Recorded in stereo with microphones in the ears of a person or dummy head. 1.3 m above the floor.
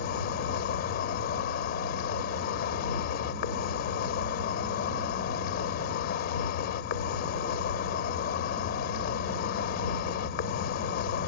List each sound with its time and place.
0.0 s an insect: 55° left (ahead or behind)